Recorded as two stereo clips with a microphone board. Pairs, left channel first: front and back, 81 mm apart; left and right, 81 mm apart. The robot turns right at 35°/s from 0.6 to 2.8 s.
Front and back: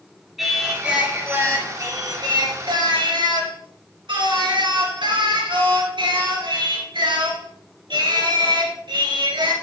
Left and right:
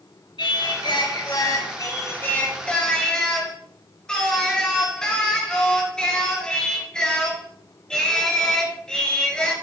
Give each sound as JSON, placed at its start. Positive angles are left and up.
{"t": 0.4, "sound": "singing", "azimuth_deg": 95, "distance_m": 2.5}